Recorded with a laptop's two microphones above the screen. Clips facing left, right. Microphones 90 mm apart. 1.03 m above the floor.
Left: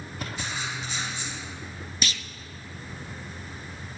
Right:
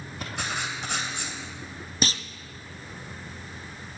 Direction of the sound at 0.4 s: 65° right (ahead or behind).